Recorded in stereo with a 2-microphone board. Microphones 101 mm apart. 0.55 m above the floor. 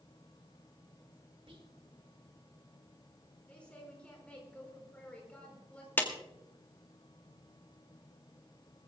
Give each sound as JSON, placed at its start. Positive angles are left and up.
{"t": 1.5, "sound": "whispering", "side_deg": -60, "distance_m": 2.0}
{"t": 3.5, "sound": "a woman speaking", "side_deg": 10, "distance_m": 5.0}
{"t": 6.0, "sound": "a clap", "side_deg": 20, "distance_m": 1.8}